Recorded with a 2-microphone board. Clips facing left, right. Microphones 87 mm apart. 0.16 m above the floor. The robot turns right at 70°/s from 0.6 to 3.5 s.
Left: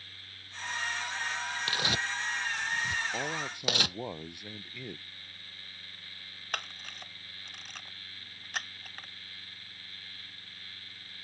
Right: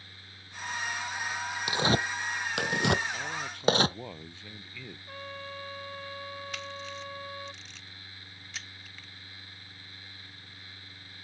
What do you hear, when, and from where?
1.7 s tearing paper: 20° right (ahead or behind); by 4.0 s 35° right (ahead or behind)
3.1 s a man speaking: 40° left (ahead or behind); by 5.0 s 15° left (ahead or behind)
5.1 s a trumpet: 75° right (ahead or behind)
6.5 s a camera shutter: 50° left (ahead or behind)